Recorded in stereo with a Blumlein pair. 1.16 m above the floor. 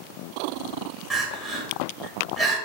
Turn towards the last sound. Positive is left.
turn(degrees=-10)